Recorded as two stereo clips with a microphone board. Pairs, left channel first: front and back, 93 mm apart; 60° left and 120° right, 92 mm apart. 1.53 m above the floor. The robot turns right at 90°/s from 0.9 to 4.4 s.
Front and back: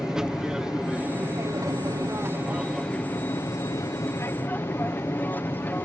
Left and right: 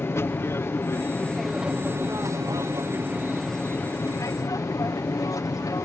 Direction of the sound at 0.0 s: 100° left.